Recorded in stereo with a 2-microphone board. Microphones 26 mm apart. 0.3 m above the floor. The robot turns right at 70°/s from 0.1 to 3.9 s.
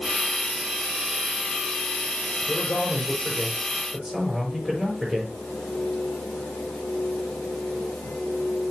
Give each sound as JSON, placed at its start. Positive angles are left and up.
{"t": 2.5, "sound": "a man speaking", "azimuth_deg": 105, "distance_m": 5.5}